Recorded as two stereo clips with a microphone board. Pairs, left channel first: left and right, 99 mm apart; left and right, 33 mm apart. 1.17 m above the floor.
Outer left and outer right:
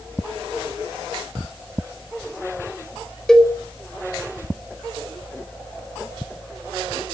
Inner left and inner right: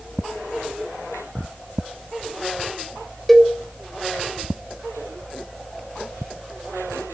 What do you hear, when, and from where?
3.3 s a cowbell: 5° left (ahead or behind), 1.5 m